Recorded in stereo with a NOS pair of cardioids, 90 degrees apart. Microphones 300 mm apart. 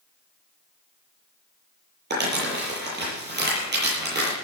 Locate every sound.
2.1 s crumpling: 35° right, 9 m